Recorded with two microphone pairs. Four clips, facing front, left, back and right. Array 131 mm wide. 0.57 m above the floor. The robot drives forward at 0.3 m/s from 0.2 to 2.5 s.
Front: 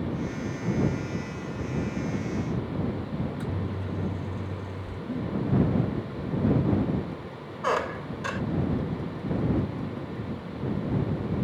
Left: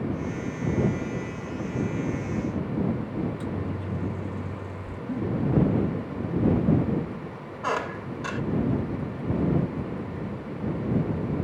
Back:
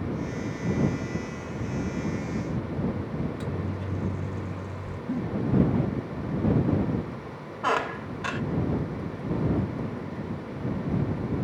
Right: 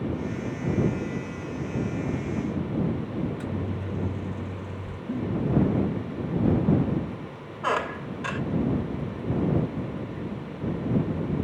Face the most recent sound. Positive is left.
turn(degrees=-175)